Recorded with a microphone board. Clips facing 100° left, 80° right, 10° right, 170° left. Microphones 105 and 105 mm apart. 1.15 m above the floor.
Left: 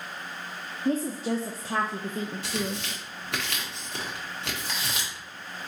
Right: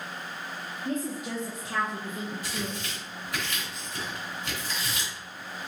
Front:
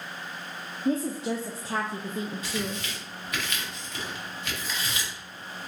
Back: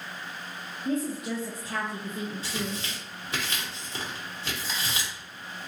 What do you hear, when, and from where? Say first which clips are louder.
0.8 s a woman speaking: left 5 dB, front 2 dB; 45° left, 0.5 m
2.4 s tearing paper: left 3 dB, front 1 dB; 110° left, 1.3 m